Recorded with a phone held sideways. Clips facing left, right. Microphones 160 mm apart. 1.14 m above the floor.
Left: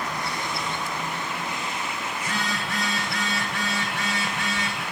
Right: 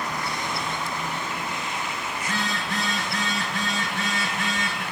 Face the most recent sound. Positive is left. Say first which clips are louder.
# right 1 dB
turn(degrees=80)